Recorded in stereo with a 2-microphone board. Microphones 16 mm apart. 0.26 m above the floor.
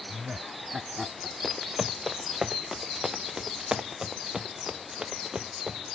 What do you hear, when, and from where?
0.1 s laughter: 25° right (ahead or behind); by 1.3 s 35° right (ahead or behind)
1.4 s running footsteps: 5° right (ahead or behind); by 6.0 s 50° right (ahead or behind)